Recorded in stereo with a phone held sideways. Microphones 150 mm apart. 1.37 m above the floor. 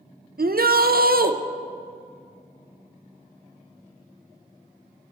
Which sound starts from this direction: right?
A shout, at 0.4 s.